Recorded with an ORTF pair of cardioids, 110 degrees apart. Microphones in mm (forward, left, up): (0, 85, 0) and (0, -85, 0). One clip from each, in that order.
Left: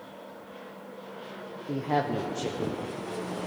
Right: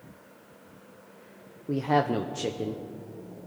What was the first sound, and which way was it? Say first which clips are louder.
A woman speaking: right 3 dB; 15° right.